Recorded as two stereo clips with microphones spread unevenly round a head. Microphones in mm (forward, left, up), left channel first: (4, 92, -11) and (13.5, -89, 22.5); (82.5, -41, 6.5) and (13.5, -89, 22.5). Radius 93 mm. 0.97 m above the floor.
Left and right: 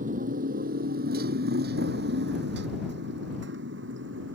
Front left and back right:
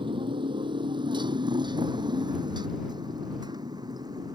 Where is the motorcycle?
135° right; by 4.4 s 110° right.